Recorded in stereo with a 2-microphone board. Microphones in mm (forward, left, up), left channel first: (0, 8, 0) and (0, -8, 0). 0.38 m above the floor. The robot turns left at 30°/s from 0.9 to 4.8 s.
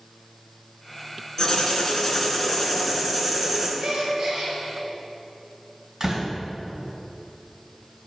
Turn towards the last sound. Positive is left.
turn(degrees=-45)  # may be behind; listen again after turning